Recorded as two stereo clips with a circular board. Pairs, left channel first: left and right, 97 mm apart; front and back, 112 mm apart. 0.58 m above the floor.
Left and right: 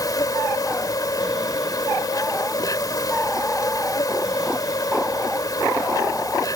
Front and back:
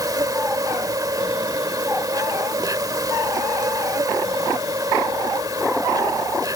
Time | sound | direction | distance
0.0 | an insect | 130° left | ?